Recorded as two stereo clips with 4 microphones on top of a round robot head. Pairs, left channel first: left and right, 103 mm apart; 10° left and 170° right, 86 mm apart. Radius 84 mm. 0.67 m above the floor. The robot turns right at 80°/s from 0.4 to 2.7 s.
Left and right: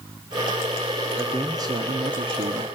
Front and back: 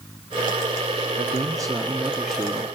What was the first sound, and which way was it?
A man speaking, 165° right.